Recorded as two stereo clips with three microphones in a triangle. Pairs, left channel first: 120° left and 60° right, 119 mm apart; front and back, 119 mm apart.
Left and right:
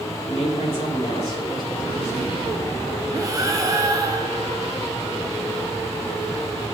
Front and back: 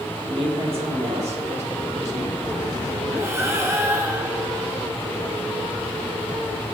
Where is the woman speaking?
135° left, 3.5 m; by 2.4 s 170° right, 3 m.